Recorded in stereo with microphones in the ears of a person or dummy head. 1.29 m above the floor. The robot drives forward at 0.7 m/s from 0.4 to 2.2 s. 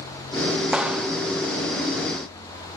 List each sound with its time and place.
0.7 s a clap: 5° right (ahead or behind), 2 m